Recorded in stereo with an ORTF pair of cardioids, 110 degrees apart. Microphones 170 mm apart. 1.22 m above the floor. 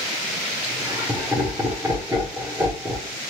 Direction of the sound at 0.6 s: 10° right.